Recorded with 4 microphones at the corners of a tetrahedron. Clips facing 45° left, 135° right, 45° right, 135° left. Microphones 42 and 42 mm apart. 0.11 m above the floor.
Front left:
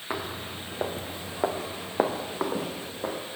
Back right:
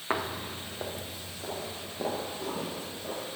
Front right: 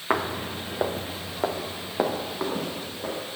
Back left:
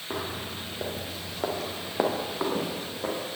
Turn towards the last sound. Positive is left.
turn(degrees=55)